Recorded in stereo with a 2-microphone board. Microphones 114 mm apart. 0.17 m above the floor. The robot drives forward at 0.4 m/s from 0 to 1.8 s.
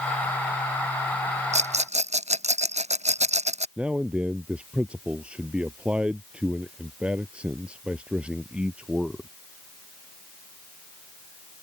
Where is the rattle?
85° right; by 3.7 s 80° right.